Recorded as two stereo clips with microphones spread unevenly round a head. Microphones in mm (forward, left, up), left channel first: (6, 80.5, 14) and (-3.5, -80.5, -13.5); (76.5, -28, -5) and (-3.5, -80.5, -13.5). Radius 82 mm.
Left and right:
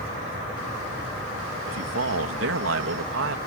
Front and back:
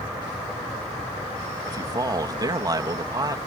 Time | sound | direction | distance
1.7 | a man speaking | 95° right | ?